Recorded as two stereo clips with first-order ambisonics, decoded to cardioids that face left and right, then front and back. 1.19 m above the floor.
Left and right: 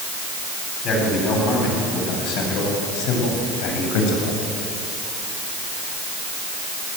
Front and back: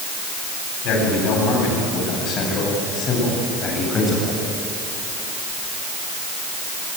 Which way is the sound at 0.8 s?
40° left.